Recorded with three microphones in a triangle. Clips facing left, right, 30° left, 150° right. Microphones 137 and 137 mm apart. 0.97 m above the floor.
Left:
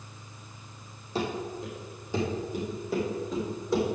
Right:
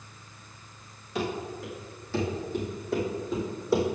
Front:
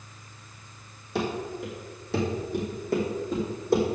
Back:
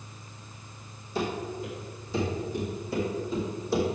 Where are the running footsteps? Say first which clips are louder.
Even, front 1 dB; 35° left, 2.5 m; by 3.9 s 5° right, 3.5 m.